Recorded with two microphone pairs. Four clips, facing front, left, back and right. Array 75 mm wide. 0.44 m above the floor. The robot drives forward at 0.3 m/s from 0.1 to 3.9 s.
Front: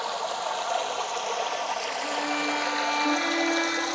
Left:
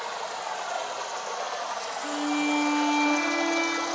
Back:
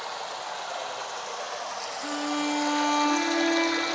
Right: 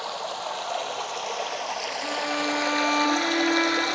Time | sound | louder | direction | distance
0.0 | running water | right 1 dB, front 5 dB | 25° right | 1.2 m
2.0 | a violin | left 1 dB, back 1 dB | 80° right | 2.5 m